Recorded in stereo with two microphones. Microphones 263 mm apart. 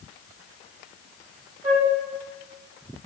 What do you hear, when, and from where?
1.6 s a flute: 25° right (ahead or behind), 0.6 m